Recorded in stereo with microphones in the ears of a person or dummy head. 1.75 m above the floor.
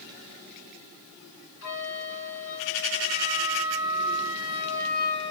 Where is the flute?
65° left (ahead or behind), 3.5 m.